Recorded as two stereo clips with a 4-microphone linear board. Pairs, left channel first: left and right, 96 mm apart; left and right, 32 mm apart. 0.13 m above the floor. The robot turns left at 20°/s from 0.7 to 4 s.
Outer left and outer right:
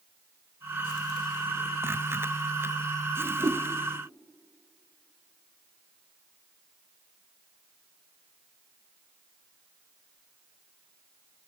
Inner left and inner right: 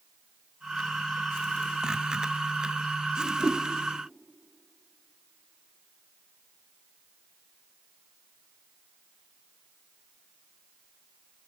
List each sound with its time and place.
3.2 s a whoosh: 50° right (ahead or behind), 0.9 m; by 3.6 s 45° right (ahead or behind), 0.9 m